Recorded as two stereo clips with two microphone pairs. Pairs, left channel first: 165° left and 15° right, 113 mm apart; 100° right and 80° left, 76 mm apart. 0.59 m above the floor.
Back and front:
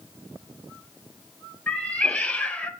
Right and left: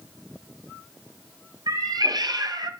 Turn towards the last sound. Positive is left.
turn(degrees=85)